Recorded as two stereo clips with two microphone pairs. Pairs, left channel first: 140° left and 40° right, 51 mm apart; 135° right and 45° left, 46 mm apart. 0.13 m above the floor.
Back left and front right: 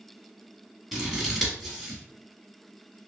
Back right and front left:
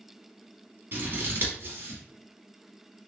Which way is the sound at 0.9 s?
55° left.